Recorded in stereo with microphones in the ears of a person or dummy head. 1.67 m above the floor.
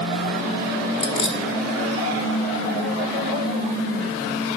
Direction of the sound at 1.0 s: 30° left (ahead or behind).